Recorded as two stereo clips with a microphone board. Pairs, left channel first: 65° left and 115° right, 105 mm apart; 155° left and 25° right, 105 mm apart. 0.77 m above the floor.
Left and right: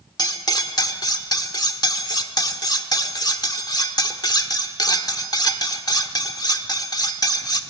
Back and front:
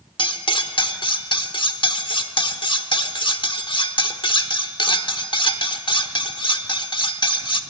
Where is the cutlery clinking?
120° left, 1.2 m.